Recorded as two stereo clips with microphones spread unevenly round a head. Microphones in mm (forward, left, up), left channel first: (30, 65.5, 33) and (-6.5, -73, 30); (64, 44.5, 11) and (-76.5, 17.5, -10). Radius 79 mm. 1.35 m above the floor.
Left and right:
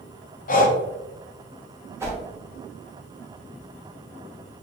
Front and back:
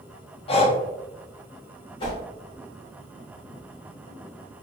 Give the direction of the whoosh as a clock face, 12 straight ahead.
1 o'clock.